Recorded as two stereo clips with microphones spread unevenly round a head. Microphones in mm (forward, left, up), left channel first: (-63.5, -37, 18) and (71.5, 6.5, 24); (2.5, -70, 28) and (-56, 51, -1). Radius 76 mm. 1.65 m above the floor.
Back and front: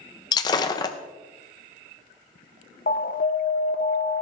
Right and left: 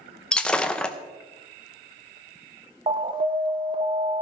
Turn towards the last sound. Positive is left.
turn(degrees=170)